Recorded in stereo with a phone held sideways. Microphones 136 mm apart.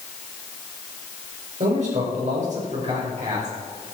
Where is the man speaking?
60° right (ahead or behind), 5 m.